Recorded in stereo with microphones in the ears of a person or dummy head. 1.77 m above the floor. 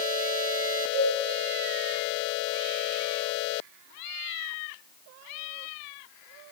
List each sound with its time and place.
0.9 s a cowbell: 60° right (ahead or behind), 1.3 m